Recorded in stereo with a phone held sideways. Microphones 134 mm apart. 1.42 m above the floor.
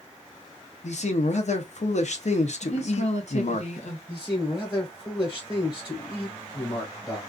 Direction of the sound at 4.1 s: 25° left (ahead or behind).